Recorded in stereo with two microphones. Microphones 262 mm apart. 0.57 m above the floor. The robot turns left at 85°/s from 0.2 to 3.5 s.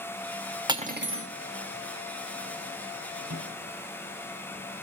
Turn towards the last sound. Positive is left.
turn(degrees=-80)